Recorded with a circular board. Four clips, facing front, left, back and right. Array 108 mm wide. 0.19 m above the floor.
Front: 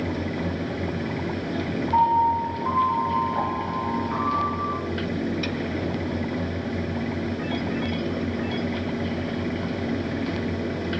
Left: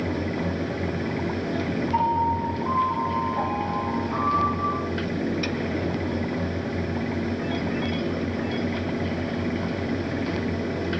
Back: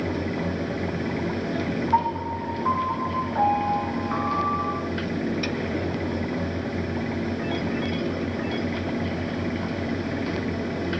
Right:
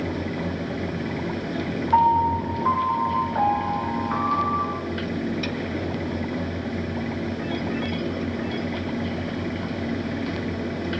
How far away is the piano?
About 2.5 m.